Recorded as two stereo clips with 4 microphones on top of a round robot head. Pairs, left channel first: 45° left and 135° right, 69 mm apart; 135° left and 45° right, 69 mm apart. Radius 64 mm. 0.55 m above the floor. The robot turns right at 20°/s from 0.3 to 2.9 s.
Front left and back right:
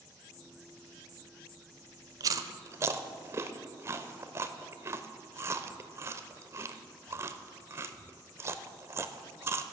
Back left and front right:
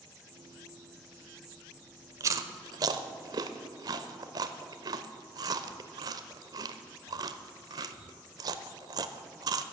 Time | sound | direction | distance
2.2 | chewing | 95° right | 0.6 m